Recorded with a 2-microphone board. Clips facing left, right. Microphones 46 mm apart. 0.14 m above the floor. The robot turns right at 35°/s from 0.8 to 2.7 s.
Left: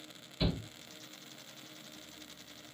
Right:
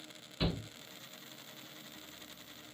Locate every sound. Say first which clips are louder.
0.4 s a shout: left 1 dB; 25° right (ahead or behind), 1.4 m